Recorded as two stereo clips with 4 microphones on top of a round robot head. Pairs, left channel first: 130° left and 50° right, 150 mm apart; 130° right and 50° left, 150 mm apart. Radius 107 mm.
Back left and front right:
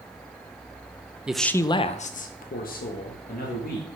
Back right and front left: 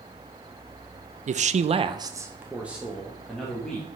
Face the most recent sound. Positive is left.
turn(degrees=145)